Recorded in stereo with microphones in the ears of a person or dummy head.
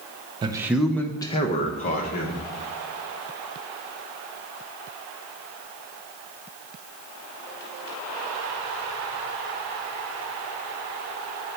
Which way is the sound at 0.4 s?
25° right (ahead or behind).